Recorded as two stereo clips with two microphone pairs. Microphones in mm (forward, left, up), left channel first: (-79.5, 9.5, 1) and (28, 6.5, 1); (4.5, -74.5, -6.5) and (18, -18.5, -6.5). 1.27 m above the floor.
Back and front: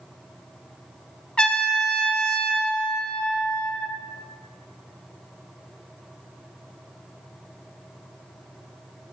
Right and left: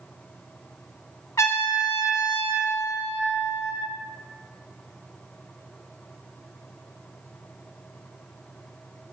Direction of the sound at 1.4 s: 105° right.